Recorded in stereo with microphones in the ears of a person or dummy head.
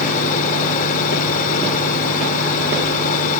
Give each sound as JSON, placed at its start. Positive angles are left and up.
{"t": 0.0, "sound": "a fan", "side_deg": 45}